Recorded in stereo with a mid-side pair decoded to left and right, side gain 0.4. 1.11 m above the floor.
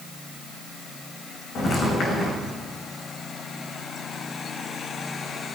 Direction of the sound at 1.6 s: 60° left.